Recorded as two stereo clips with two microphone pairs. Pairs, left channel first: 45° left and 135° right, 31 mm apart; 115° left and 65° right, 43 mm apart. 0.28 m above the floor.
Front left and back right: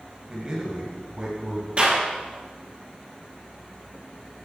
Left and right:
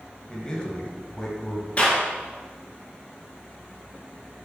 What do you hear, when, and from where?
0.3 s a man speaking: 175° left, 1.5 m; by 1.7 s 175° right, 2 m
1.8 s a clap: 170° left, 3 m